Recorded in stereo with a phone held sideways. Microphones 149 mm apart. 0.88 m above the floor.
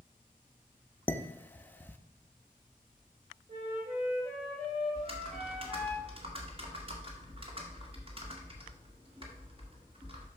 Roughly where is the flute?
Right.